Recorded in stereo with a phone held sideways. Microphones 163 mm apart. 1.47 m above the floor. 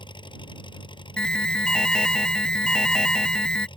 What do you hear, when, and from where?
0.0 s an engine running: 30° left (ahead or behind)
1.2 s an alarm: 5° left (ahead or behind)